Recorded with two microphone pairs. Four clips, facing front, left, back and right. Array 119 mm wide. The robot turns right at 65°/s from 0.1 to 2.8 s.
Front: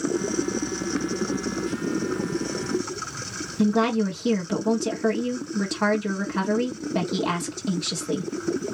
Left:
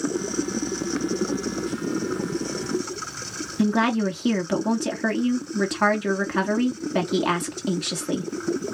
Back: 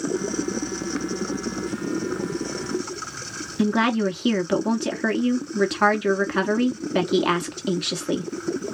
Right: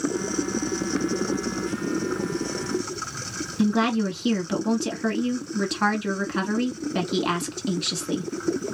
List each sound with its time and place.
3.6 s a woman speaking: straight behind, 1.3 m